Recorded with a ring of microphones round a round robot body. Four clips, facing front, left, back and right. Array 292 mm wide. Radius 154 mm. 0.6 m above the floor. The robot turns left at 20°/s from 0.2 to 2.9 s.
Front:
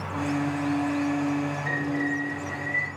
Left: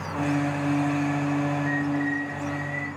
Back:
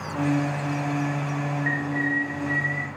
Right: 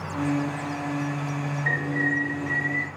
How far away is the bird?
About 9 m.